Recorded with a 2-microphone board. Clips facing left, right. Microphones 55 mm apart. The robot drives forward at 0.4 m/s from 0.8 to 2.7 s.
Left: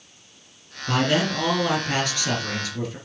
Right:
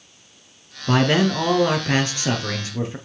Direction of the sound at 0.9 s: 35° right (ahead or behind).